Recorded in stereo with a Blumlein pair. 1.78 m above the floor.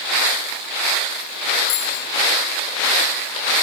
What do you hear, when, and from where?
1.7 s a bicycle bell: 45° left, 7 m